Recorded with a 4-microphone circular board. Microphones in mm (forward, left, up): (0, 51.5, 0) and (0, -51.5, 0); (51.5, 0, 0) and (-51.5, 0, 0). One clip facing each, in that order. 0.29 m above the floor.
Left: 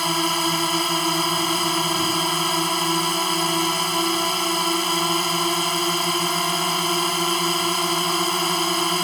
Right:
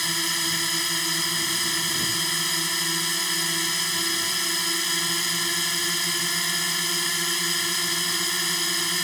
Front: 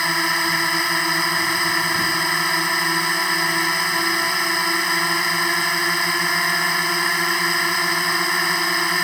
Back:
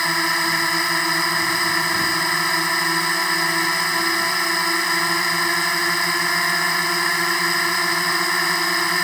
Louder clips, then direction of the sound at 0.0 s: Left 10 dB, even; 90° left.